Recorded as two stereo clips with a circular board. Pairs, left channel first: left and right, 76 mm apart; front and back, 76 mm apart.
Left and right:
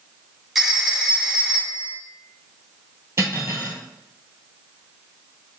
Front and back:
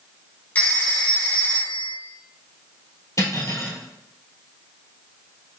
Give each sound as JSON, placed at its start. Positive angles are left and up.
{"t": 0.6, "sound": "a phone ringing", "azimuth_deg": -10, "distance_m": 1.1}
{"t": 3.2, "sound": "cutlery clinking", "azimuth_deg": -40, "distance_m": 1.4}